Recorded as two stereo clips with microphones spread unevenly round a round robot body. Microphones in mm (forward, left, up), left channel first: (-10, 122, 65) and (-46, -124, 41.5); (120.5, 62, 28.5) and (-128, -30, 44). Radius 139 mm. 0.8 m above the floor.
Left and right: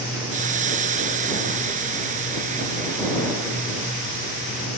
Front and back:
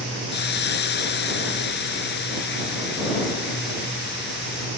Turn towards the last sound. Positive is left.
turn(degrees=-35)